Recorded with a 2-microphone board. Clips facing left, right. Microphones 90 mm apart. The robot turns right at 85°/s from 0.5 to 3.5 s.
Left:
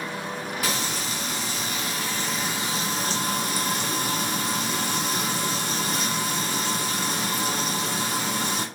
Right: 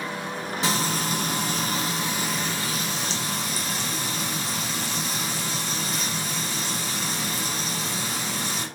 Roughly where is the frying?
Behind right.